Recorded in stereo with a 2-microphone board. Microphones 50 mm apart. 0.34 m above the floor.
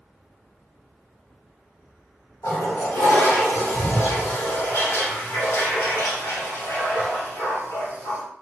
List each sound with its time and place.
2.4 s a toilet flushing: 80° left, 2.5 m